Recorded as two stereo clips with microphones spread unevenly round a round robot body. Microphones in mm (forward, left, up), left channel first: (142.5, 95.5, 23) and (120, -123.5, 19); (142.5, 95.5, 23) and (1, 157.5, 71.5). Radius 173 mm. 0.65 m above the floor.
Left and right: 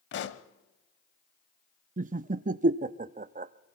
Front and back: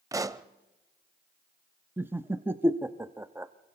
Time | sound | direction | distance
0.1 | a pop | 110° left | 0.6 m
2.0 | laughter | 110° right | 0.5 m